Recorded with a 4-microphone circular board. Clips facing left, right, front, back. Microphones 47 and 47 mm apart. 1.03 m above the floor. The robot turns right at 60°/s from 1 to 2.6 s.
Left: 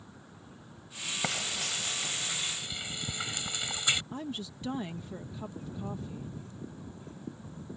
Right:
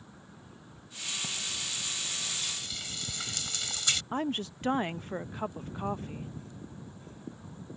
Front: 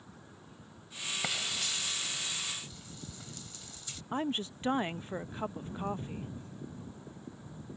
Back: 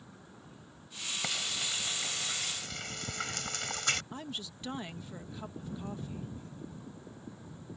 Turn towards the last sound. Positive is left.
turn(degrees=-50)